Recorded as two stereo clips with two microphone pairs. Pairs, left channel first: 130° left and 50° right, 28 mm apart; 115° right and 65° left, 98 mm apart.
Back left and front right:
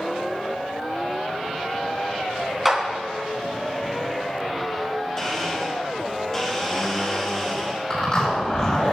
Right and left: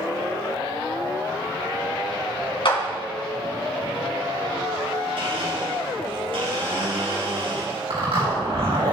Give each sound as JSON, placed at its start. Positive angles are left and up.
{"t": 2.6, "sound": "a clap", "azimuth_deg": -135, "distance_m": 2.5}
{"t": 5.2, "sound": "a blender", "azimuth_deg": 60, "distance_m": 3.0}
{"t": 7.9, "sound": "a zipper", "azimuth_deg": 70, "distance_m": 5.0}